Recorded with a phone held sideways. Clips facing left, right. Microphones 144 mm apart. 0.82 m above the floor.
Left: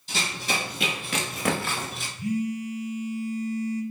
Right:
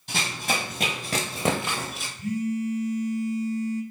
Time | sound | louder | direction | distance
0.1 | running footsteps | right 1 dB | 60° right (ahead or behind) | 1.4 m
2.2 | a phone buzzing | right 1 dB | 10° left (ahead or behind) | 0.5 m